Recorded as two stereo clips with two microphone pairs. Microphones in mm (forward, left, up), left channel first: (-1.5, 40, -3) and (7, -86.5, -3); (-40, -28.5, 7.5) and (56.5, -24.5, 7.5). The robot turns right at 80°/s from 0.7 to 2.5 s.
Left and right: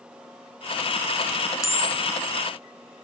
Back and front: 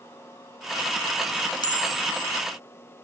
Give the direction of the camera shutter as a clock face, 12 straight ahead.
7 o'clock.